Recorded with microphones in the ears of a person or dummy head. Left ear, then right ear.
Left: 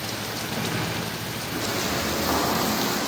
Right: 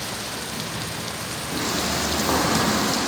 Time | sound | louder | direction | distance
1.5 | footsteps | right 2 dB | 15° right (ahead or behind) | 3 m